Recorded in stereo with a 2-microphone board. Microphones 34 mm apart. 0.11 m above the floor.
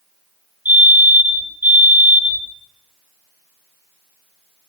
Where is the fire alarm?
65° right (ahead or behind), 9 m.